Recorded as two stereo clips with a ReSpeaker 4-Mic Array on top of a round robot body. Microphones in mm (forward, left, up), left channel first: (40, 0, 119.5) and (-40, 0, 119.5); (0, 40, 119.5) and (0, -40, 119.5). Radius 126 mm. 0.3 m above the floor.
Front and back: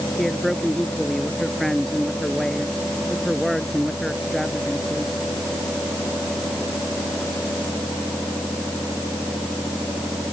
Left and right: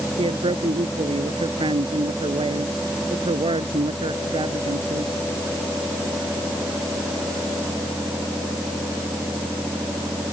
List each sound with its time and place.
0.2 s a man speaking: 90° right